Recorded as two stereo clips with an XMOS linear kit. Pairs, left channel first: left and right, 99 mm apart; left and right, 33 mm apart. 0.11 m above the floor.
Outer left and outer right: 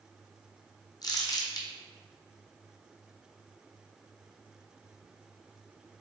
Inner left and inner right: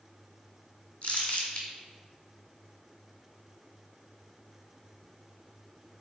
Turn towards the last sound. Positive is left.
turn(degrees=45)  # may be behind; listen again after turning